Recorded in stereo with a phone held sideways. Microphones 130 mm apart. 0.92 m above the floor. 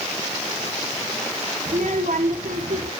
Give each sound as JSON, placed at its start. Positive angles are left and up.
{"t": 1.7, "sound": "a child speaking", "side_deg": -80, "distance_m": 1.4}